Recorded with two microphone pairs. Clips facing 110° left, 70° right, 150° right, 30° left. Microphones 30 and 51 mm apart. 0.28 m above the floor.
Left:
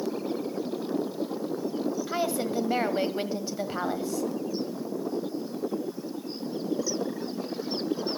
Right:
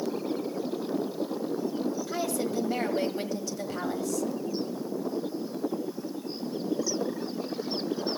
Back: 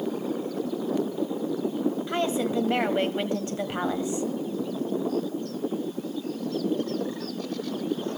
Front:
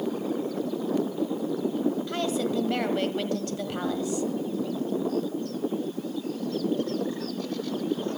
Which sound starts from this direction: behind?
A woman speaking, at 2.1 s.